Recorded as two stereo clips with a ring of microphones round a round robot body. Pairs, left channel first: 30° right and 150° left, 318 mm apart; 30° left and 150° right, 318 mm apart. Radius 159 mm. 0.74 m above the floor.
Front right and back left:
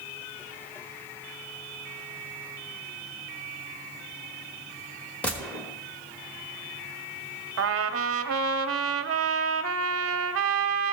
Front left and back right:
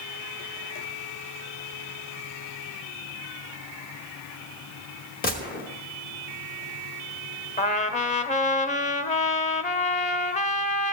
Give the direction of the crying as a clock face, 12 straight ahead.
No crying in this recording.